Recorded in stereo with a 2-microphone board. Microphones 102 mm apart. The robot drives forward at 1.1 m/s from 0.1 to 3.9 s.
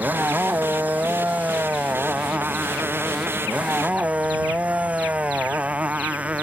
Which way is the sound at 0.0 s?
15° right (ahead or behind).